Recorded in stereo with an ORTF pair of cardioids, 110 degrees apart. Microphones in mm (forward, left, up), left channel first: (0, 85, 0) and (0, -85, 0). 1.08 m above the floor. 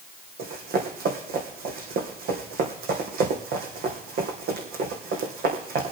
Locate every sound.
0.4 s running footsteps: 65° right, 3.5 m